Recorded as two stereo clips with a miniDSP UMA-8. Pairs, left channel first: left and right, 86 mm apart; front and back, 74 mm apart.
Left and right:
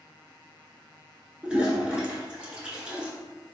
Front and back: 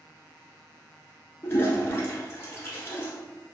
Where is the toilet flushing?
20° right, 0.8 m.